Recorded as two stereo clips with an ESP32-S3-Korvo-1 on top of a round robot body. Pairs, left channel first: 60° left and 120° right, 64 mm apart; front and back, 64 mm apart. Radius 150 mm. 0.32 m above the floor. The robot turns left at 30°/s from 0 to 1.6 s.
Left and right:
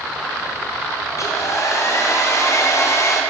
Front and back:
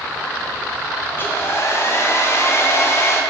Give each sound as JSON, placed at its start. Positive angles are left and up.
{"t": 1.1, "sound": "a hair dryer", "azimuth_deg": 50, "distance_m": 1.1}